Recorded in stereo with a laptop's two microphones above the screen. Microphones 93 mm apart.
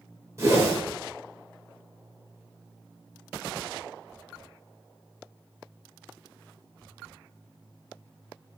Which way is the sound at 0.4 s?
30° right (ahead or behind).